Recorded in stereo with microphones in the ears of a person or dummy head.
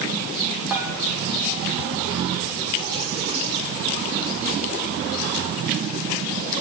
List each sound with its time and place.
0.7 s dishes clattering: 10° right (ahead or behind), 1.4 m